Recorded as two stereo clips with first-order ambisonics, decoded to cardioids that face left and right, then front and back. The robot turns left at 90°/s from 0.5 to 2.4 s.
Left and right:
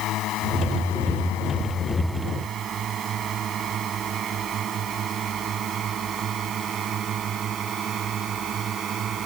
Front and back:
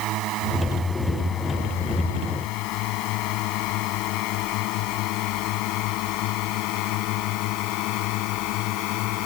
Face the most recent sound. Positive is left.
turn(degrees=-30)